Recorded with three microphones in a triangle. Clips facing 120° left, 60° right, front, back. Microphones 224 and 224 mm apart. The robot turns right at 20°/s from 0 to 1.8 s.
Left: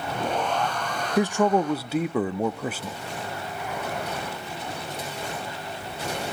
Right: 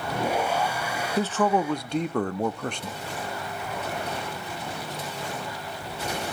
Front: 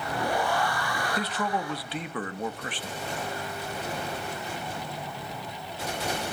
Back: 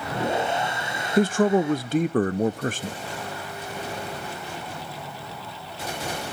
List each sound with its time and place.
1.2 s a man speaking: 170° right, 0.6 m; by 3.0 s 160° right, 0.6 m